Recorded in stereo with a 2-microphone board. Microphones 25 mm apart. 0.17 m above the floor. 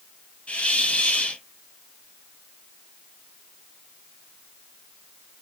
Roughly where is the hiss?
Left.